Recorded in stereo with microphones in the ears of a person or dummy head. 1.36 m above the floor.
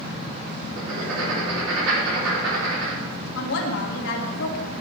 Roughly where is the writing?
Right.